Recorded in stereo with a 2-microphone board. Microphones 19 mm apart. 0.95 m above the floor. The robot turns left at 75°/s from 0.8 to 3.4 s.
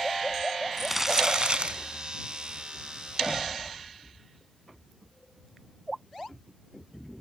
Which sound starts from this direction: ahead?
Crumpling, at 0.8 s.